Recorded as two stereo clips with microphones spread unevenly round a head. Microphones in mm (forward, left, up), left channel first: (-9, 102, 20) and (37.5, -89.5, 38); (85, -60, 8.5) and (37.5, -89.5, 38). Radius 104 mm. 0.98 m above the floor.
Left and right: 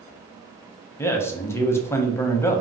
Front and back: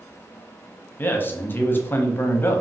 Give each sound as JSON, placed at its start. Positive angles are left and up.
{"t": 1.0, "sound": "a man speaking", "azimuth_deg": 30, "distance_m": 0.6}